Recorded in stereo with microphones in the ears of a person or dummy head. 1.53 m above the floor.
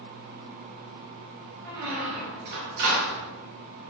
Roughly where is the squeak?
Right.